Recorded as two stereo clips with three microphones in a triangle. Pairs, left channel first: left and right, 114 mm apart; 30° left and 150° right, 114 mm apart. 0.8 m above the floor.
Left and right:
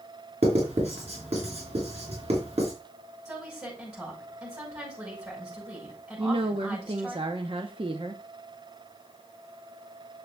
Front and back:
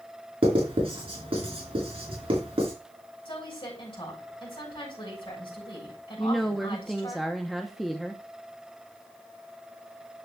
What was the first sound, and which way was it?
Writing, 115° right.